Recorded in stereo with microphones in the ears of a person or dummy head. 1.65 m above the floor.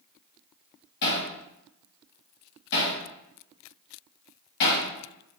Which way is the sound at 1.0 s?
55° left (ahead or behind).